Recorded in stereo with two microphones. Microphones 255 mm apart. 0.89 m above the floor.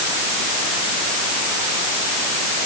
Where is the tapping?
No tapping in this recording.